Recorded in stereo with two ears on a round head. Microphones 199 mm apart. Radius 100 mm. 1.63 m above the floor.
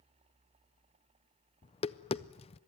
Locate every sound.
1.6 s tapping: 25° left (ahead or behind), 0.5 m